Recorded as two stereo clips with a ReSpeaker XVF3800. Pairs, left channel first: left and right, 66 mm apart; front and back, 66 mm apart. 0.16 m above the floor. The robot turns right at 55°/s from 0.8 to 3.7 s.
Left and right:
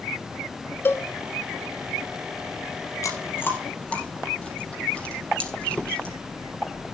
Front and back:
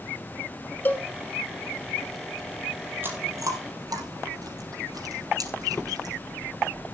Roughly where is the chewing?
Behind left.